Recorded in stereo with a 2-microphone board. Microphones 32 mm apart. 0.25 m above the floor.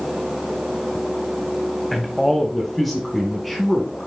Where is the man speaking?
5° left (ahead or behind), 1.2 m.